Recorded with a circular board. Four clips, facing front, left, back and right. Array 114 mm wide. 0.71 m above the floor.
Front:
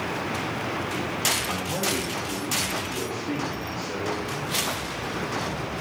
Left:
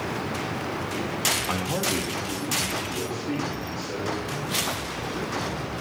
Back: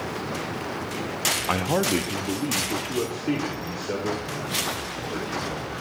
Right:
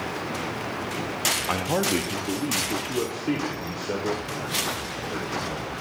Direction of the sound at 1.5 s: 165° right.